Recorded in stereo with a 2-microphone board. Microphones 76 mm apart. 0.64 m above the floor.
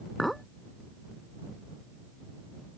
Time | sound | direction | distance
0.2 | a clink | centre (ahead or behind) | ?